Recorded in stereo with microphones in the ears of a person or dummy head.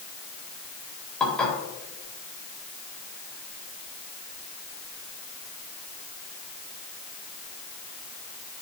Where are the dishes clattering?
5° left (ahead or behind), 4 m.